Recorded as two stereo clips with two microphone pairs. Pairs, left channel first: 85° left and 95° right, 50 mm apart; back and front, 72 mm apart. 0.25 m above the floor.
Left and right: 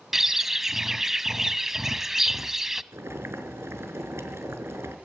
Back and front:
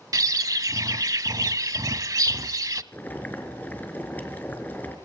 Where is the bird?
15° right, 0.8 m.